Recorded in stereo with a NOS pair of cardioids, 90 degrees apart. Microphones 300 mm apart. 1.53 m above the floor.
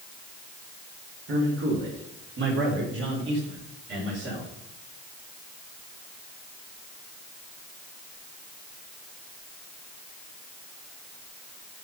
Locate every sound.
1.3 s a man speaking: 45° right, 5 m; by 4.5 s 40° right, 7.5 m